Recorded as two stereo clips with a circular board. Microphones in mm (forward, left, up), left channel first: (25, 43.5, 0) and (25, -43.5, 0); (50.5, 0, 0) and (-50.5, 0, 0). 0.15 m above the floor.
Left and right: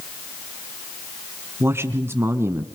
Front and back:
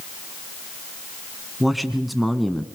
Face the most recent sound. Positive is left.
turn(degrees=-90)